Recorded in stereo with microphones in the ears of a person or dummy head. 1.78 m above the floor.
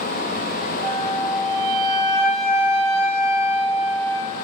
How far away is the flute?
About 3 m.